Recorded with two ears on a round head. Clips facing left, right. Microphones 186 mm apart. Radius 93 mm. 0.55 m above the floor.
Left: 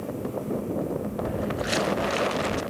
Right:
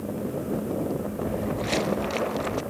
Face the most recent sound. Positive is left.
turn(degrees=15)  # may be behind; listen again after turning